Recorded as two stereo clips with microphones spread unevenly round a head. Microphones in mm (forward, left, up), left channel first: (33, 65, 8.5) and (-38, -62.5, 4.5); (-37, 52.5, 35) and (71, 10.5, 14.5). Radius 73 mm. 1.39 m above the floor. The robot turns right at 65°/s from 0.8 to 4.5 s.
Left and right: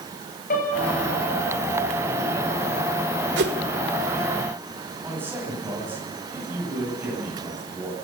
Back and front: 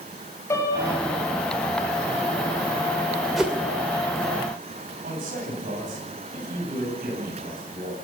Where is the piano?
95° left, 8.5 m; by 1.1 s 115° left, 8.5 m.